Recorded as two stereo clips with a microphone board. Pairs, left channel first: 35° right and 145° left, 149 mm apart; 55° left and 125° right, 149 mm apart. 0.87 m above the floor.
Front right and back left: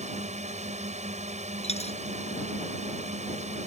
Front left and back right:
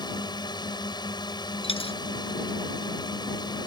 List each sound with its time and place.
0.0 s a drone: 115° left
1.6 s a dropped coin: 10° left